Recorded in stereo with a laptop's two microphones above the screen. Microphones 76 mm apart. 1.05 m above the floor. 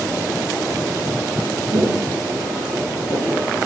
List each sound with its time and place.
1.7 s footsteps: 50° right (ahead or behind), 2 m; by 3.7 s 35° right (ahead or behind), 1.2 m